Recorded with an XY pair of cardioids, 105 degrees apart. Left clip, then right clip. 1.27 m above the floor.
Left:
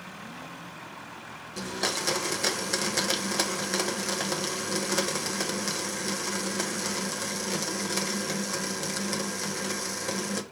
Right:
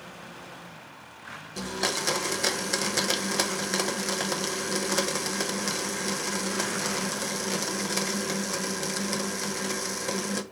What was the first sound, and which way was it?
A blender, 10° right.